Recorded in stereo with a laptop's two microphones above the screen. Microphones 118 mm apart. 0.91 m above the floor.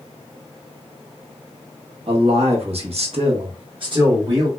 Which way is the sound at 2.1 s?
55° right (ahead or behind).